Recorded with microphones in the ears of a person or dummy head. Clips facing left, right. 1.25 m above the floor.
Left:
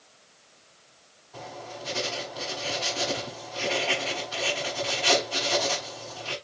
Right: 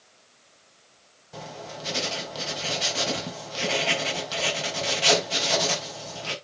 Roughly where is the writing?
Right.